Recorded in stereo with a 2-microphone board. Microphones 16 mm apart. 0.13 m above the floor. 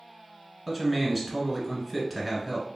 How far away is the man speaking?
About 1.3 m.